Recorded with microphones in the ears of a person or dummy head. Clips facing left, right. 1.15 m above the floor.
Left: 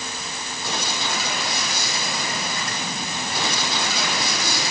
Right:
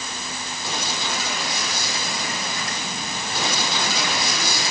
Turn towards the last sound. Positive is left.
No sound to turn to.